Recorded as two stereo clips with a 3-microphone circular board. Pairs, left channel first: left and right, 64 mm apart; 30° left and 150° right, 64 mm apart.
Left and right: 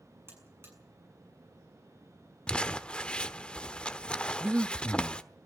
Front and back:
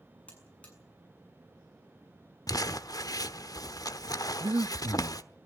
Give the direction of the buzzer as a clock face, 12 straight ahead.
1 o'clock.